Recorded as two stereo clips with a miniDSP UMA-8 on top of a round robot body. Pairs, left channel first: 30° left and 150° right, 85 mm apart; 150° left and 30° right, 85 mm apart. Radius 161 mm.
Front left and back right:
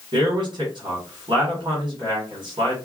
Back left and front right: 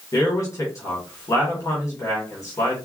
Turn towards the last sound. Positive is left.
turn(degrees=-160)